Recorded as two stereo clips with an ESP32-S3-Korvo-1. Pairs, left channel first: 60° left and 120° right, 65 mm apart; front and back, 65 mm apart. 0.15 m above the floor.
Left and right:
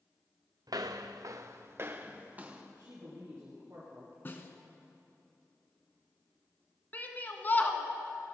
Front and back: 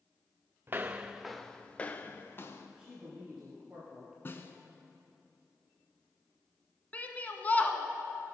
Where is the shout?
40° left, 1.2 m.